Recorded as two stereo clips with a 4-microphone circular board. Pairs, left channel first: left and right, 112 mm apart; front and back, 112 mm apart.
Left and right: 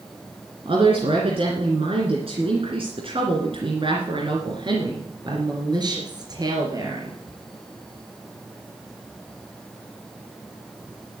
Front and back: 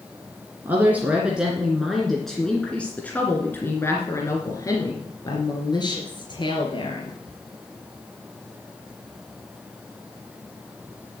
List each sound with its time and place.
0.7 s a woman speaking: 110° right, 2.5 m; by 7.2 s 35° right, 3.5 m